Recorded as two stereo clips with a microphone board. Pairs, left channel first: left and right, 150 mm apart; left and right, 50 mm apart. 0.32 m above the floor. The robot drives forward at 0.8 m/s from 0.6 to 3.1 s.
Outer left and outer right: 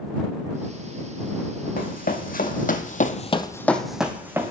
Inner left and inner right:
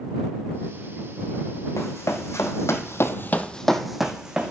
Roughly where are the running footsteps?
Left.